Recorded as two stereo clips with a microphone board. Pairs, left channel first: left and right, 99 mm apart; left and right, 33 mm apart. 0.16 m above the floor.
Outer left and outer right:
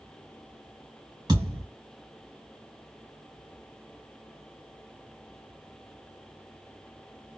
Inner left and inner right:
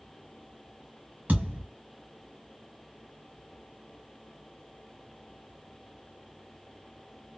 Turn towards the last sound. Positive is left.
turn(degrees=-45)  # may be behind; listen again after turning